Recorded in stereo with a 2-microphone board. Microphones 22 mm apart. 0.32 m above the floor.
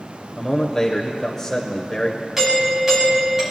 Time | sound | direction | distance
0.4 | a man speaking | 15° left (ahead or behind) | 0.9 m
2.4 | a doorbell | 15° right (ahead or behind) | 3.5 m